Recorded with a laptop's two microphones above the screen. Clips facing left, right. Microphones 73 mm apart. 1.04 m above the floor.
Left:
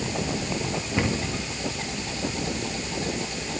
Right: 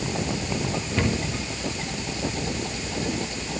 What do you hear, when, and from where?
1.0 s a cupboard door: 15° left (ahead or behind), 1.5 m